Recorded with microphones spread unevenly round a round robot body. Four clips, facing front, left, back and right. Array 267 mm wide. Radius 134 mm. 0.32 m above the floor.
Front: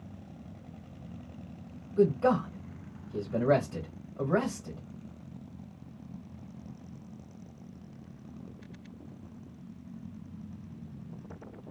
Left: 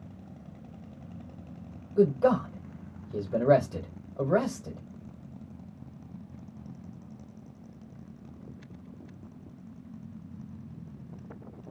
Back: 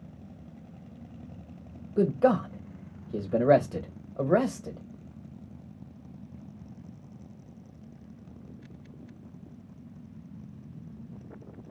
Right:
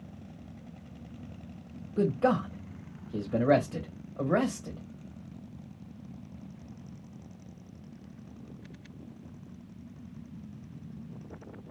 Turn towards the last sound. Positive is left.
turn(degrees=170)